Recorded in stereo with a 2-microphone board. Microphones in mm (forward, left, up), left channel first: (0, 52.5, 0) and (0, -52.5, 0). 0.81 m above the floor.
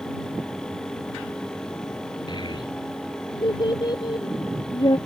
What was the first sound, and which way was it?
A child speaking, 40° left (ahead or behind).